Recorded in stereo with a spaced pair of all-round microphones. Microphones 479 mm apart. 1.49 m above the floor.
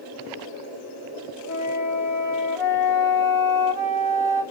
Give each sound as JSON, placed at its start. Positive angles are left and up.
{"t": 1.5, "sound": "a flute", "side_deg": 40, "distance_m": 1.0}